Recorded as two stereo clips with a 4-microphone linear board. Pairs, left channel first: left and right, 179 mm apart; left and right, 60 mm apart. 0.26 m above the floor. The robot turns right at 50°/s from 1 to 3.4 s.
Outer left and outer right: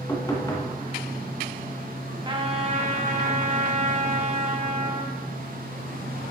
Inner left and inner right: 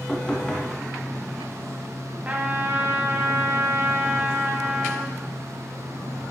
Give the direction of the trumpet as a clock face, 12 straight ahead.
5 o'clock.